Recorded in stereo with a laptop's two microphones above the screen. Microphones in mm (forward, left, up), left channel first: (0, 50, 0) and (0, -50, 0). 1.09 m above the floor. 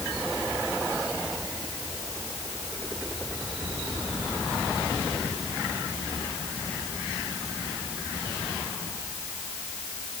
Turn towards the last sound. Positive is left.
No sound to turn to.